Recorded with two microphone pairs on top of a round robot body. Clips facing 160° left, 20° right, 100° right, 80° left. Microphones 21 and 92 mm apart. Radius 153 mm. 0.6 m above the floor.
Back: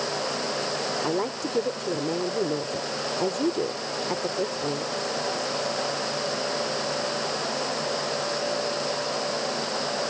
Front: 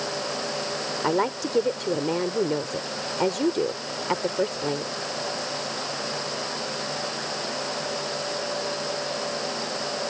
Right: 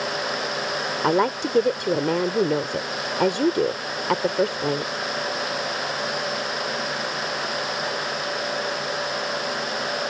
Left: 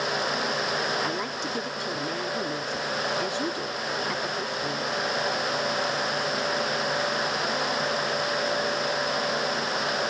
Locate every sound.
1.0 s a woman speaking: 75° right